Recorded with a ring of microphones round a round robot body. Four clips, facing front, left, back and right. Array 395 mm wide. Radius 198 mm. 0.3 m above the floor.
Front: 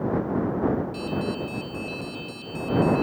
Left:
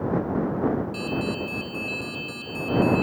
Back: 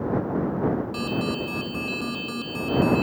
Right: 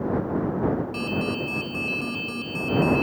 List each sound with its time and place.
0.9 s an alarm: 145° right